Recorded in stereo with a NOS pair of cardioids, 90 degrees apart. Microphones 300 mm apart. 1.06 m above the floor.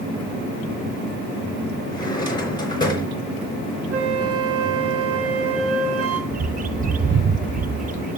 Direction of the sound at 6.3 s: 30° right.